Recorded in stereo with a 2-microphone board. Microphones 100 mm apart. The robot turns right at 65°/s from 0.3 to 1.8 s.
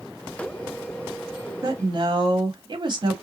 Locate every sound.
1.6 s a woman speaking: 40° right (ahead or behind), 1.5 m; by 3.1 s 50° right (ahead or behind), 1.5 m